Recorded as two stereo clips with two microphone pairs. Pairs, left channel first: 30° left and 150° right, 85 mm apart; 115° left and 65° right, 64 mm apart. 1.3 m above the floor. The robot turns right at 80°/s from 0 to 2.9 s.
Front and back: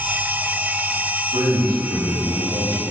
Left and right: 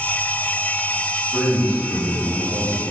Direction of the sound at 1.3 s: 150° right.